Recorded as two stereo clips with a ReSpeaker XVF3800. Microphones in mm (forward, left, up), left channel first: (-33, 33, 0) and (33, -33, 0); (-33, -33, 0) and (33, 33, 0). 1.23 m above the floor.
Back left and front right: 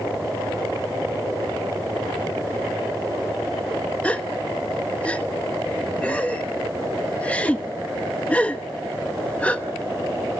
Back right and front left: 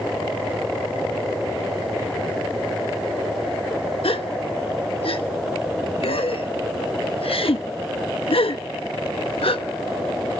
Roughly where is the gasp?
Behind right.